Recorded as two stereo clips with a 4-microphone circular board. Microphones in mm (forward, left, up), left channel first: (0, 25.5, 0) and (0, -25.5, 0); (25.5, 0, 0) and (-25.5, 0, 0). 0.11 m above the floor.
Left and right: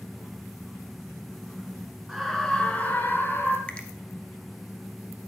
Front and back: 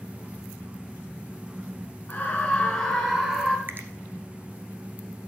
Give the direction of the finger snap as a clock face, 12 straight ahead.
7 o'clock.